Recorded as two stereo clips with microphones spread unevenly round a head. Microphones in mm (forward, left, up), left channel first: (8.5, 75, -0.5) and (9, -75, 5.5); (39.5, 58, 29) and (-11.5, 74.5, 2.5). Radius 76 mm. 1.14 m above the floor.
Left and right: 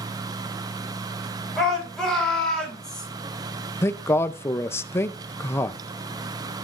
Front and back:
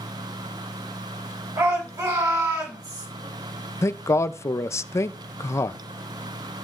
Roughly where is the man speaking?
Ahead.